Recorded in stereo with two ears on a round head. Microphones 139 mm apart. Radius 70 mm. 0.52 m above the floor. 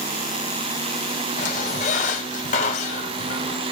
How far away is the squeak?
About 2.5 m.